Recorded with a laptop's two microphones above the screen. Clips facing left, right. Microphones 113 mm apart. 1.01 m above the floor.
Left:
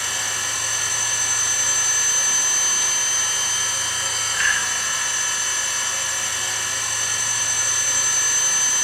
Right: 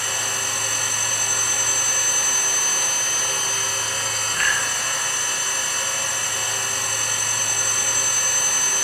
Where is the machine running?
50° right (ahead or behind), 0.7 m.